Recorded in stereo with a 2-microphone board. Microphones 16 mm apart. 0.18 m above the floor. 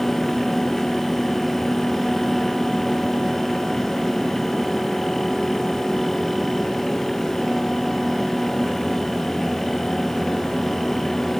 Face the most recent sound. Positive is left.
No sound to turn to.